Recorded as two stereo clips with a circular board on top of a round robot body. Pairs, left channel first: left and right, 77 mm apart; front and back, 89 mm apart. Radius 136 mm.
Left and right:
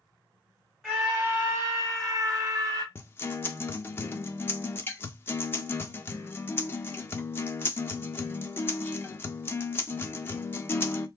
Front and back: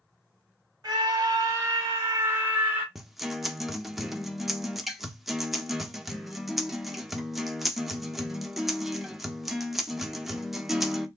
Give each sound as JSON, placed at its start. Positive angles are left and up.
{"t": 0.8, "sound": "a scream", "azimuth_deg": -175, "distance_m": 1.2}
{"t": 3.0, "sound": "a guitar", "azimuth_deg": 95, "distance_m": 0.7}